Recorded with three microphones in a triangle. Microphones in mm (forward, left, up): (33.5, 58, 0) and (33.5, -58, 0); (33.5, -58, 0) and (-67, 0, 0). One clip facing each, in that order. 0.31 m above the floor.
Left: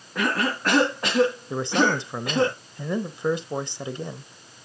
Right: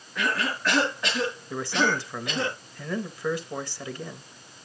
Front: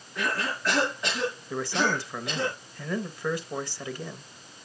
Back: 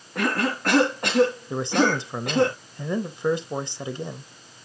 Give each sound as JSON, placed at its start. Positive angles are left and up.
{"t": 0.1, "sound": "a cough", "azimuth_deg": 125, "distance_m": 3.5}
{"t": 1.5, "sound": "a man speaking", "azimuth_deg": 120, "distance_m": 0.9}